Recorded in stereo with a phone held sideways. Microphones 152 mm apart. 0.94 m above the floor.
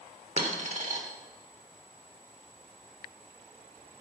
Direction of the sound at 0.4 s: 50° right (ahead or behind).